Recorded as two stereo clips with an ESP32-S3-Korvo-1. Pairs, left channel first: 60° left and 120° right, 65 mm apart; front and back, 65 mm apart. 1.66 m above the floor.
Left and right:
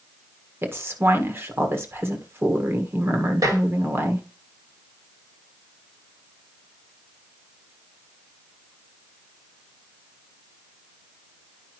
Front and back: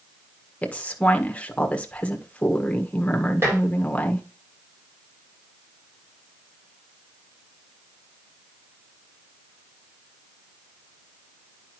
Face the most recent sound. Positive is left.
turn(degrees=-130)